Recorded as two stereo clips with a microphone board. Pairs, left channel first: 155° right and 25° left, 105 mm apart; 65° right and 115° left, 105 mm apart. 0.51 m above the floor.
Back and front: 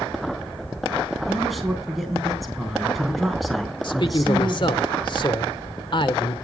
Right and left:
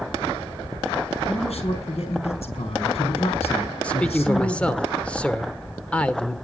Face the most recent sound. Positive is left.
turn(degrees=-145)